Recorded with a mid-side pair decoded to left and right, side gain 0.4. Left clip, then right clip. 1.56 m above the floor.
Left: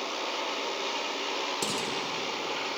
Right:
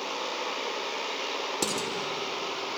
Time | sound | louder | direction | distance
1.6 | dishes clattering | right 1 dB | 35° right | 3 m